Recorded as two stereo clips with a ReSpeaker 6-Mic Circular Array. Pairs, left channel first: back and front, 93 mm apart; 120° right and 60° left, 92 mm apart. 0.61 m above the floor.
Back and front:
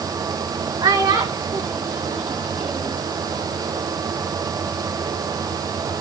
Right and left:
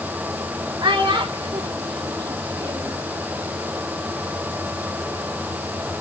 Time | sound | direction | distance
0.8 | a child speaking | 35° left | 2 m